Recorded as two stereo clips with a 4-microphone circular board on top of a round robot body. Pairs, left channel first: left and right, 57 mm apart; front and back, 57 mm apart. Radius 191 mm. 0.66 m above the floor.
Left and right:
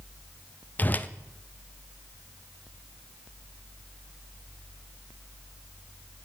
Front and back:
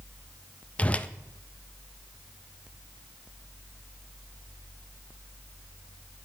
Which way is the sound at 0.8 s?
55° left.